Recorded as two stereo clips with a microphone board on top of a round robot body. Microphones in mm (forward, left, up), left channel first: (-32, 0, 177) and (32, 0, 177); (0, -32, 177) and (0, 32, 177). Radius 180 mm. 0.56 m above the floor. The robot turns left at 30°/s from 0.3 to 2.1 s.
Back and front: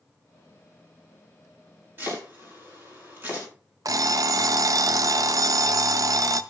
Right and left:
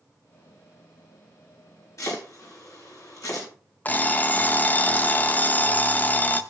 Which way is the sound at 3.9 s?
25° right.